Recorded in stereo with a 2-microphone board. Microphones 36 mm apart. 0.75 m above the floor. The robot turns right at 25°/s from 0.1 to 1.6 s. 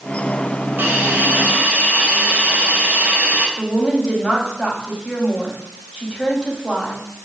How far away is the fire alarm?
I don't hear a fire alarm.